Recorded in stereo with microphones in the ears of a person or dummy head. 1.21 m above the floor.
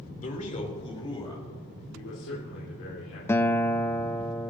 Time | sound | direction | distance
0.2 | a man speaking | 45° left (ahead or behind) | 2.5 m
1.9 | a man speaking | 65° left (ahead or behind) | 3 m
3.3 | a guitar | 10° left (ahead or behind) | 0.5 m